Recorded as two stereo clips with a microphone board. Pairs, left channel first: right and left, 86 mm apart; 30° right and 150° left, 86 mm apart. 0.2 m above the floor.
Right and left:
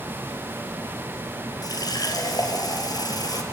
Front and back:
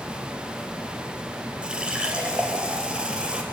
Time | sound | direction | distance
1.6 | a running tap | 130° right | 3 m